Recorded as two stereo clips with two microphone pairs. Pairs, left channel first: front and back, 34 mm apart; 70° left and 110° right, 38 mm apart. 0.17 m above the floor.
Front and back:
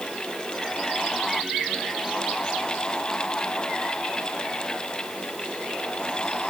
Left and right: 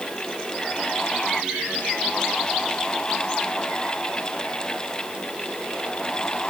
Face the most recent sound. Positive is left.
No sound to turn to.